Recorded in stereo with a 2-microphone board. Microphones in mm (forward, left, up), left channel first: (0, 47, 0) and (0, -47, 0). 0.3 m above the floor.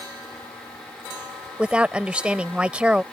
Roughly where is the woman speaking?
Centre.